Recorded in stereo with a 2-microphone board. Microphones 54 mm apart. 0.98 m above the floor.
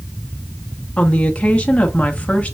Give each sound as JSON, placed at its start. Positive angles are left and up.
{"t": 1.0, "sound": "a woman speaking", "side_deg": 25, "distance_m": 1.2}